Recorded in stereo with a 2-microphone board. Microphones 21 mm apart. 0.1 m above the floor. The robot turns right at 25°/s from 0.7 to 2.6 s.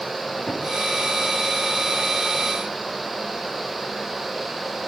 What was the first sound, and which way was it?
A cupboard door, 40° left (ahead or behind).